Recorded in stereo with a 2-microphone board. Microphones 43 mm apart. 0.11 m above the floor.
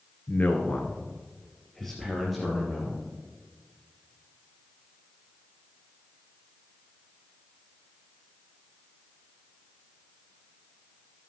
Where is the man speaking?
40° left (ahead or behind), 1.7 m; by 3.0 s 5° right (ahead or behind), 4 m.